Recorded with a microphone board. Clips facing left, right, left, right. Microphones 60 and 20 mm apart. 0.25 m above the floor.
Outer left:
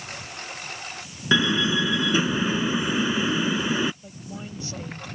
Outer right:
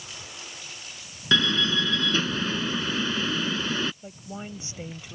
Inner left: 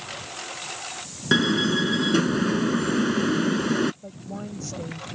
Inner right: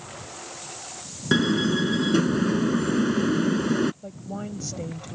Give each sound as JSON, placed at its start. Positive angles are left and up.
{"t": 0.0, "sound": "a lawn mower", "side_deg": 55}
{"t": 1.3, "sound": "a door slam", "side_deg": 15}
{"t": 4.0, "sound": "a woman speaking", "side_deg": -20}